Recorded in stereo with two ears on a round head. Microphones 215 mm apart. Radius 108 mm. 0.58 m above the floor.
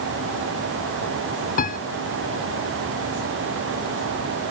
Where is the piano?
35° left (ahead or behind).